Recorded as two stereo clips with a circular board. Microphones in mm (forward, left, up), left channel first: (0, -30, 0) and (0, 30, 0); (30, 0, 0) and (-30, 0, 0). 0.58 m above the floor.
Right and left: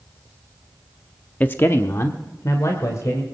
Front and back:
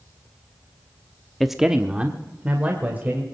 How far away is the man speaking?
About 0.6 m.